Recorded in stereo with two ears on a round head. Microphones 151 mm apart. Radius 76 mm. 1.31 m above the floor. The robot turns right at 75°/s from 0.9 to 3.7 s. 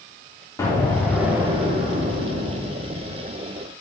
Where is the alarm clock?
I don't hear an alarm clock.